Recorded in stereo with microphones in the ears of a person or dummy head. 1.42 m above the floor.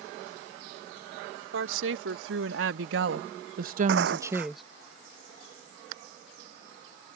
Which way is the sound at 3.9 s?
70° right (ahead or behind).